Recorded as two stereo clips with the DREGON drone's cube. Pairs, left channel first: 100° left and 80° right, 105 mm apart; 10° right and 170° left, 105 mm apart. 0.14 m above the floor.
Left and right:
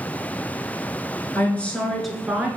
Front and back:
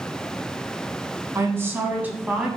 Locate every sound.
1.4 s a woman speaking: 145° left, 1.5 m; by 2.5 s 130° right, 1.4 m